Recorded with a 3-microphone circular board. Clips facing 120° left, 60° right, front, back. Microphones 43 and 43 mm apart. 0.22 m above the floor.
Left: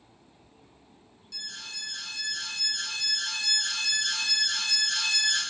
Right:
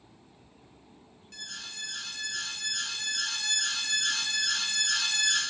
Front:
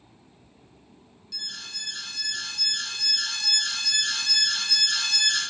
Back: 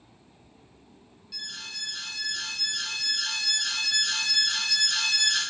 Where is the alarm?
105° right, 1.3 m.